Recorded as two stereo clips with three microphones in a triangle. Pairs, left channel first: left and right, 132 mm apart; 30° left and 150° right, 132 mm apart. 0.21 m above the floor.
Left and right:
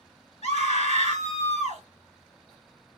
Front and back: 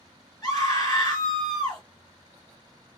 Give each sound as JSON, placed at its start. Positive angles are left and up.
{"t": 0.4, "sound": "a scream", "azimuth_deg": 75, "distance_m": 2.5}